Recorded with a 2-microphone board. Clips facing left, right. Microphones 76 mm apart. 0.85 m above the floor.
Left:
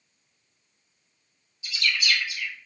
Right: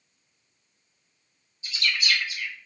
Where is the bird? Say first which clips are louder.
Left 1 dB; 35° right (ahead or behind), 0.9 m.